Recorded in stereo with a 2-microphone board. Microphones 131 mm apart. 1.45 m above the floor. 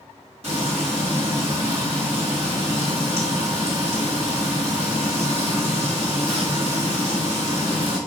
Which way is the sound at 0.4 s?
55° right (ahead or behind).